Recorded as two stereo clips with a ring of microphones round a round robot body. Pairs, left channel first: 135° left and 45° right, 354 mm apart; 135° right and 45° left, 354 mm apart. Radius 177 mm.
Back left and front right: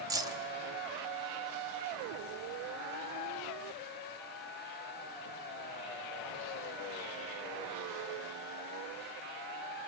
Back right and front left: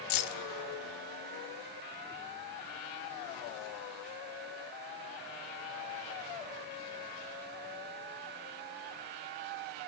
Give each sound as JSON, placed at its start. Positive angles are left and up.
{"t": 0.1, "sound": "keys jangling", "azimuth_deg": -125, "distance_m": 0.7}